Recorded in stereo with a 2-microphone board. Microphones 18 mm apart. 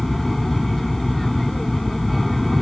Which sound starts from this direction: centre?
An aircraft, at 0.0 s.